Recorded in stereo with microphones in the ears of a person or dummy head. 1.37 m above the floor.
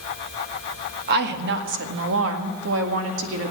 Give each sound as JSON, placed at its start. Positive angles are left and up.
{"t": 1.1, "sound": "a woman speaking", "side_deg": -65, "distance_m": 2.0}